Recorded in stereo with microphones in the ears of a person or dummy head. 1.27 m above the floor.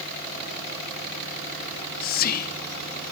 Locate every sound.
1.7 s whispering: 50° left (ahead or behind), 0.9 m